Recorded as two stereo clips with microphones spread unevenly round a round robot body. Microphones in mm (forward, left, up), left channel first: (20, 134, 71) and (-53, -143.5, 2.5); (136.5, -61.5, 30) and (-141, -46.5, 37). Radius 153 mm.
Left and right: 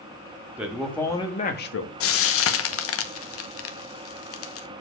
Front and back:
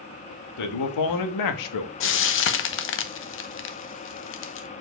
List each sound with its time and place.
0.6 s a man speaking: 20° right, 1.7 m; by 1.9 s 30° left, 1.1 m
2.0 s frying: 30° left, 0.9 m